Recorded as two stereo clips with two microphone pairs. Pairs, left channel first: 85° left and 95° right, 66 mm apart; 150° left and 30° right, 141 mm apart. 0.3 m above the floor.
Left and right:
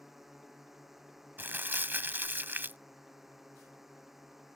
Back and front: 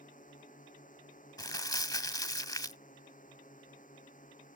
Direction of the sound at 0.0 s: Straight behind.